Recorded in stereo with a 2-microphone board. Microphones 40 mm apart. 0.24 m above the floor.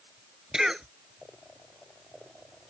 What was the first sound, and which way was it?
A cough, 15° right (ahead or behind).